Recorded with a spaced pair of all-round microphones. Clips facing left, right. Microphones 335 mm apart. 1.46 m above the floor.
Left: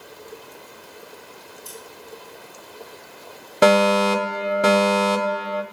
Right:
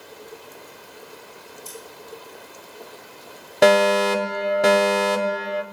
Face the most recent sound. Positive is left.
turn(degrees=5)  # may be behind; listen again after turning